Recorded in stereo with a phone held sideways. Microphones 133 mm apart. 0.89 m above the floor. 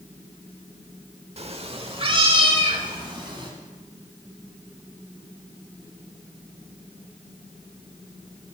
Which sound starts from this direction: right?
A cat meowing, at 1.4 s.